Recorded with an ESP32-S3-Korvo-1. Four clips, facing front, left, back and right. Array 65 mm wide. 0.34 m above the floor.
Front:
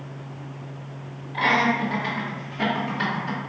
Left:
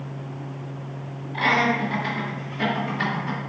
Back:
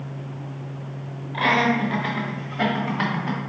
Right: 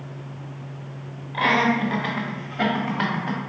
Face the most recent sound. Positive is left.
turn(degrees=-125)